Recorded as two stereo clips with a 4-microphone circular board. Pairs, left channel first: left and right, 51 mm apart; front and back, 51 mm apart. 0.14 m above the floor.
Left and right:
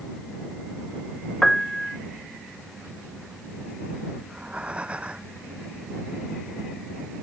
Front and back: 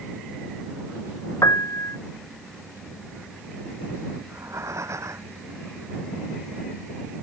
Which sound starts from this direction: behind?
Breathing, at 4.2 s.